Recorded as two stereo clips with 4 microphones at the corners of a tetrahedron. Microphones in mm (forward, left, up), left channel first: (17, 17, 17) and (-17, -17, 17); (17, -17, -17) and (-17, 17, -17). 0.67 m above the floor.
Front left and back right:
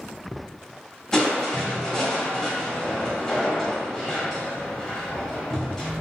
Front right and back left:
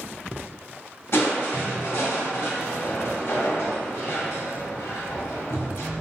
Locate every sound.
1.1 s crushing: 30° right, 1.5 m